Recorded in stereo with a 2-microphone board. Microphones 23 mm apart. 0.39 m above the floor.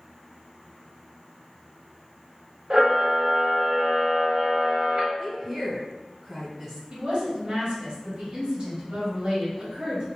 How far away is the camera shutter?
About 0.8 m.